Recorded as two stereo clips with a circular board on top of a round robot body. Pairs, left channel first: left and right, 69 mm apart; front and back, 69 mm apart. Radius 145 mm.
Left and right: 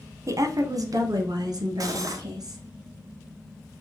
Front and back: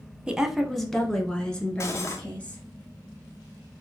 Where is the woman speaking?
105° right, 0.9 m; by 2.6 s 65° right, 2.5 m.